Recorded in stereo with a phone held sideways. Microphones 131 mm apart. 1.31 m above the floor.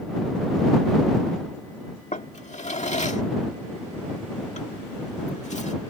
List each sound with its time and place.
2.1 s a drawer: 60° left (ahead or behind)